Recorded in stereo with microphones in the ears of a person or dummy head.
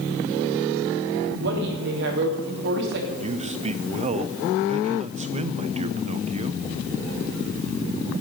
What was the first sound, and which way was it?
A woman speaking, 60° right (ahead or behind).